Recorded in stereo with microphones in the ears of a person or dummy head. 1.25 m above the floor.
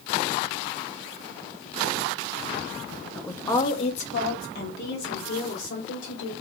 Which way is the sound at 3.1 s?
5° left (ahead or behind).